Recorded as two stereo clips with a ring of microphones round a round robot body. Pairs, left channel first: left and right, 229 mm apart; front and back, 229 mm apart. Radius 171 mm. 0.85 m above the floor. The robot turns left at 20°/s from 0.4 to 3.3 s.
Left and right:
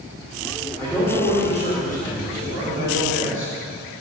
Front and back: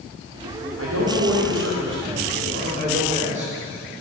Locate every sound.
0.8 s a man speaking: 175° left, 3 m; by 3.5 s 125° left, 3 m